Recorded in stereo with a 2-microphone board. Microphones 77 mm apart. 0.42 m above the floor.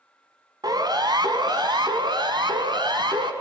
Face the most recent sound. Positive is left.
turn(degrees=-75)  # may be behind; listen again after turning